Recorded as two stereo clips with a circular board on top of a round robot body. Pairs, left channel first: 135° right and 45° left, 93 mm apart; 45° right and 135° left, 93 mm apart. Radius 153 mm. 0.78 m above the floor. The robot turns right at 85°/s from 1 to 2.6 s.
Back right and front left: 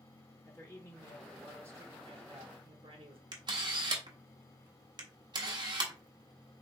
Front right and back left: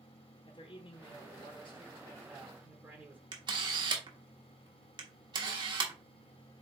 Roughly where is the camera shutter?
Left.